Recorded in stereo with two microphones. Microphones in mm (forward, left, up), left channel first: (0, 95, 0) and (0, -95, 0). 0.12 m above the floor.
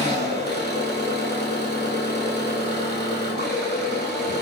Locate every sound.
0.0 s an engine running: 60° left (ahead or behind), 1.3 m